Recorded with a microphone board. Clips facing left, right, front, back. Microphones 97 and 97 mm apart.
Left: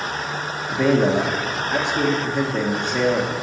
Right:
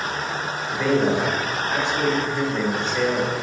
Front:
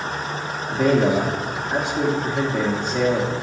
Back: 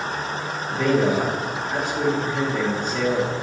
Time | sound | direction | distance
0.7 | a man speaking | 75° left | 1.2 m